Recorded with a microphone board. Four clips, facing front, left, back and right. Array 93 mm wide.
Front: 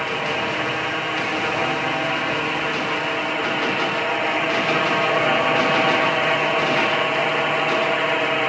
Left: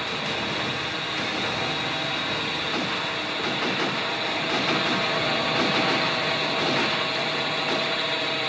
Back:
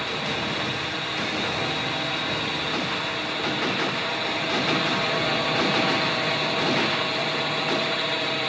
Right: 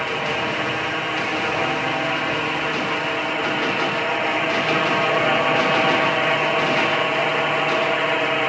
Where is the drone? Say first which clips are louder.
Right 6 dB, front 5 dB; 45° right.